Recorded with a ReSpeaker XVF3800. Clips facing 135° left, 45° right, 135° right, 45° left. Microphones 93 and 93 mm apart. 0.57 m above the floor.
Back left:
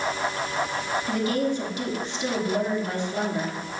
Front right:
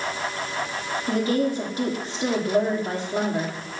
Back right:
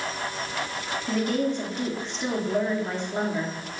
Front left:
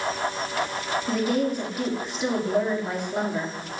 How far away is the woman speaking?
About 1.3 m.